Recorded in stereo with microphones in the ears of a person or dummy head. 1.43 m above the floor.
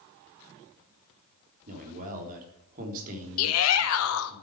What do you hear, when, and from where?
1.7 s a man speaking: 45° right (ahead or behind), 3 m
3.4 s a shout: 75° left (ahead or behind), 1.2 m